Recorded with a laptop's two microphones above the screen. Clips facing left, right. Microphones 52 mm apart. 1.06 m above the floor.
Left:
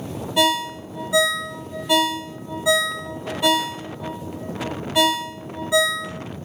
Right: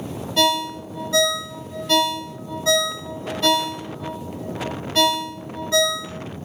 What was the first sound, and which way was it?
A ringtone, 15° left (ahead or behind).